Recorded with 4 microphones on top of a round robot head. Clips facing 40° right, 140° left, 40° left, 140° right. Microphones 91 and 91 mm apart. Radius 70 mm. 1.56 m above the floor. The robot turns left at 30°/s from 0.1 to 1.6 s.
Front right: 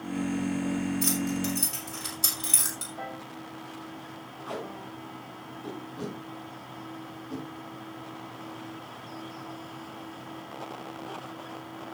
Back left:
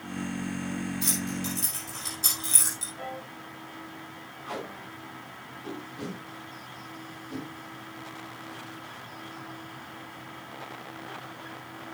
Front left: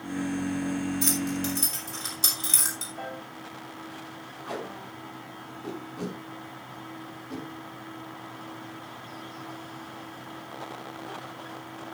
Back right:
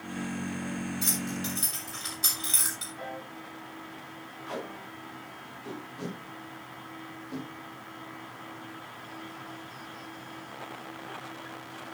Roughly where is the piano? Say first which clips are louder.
Back left 1 dB, front left 2 dB; ahead.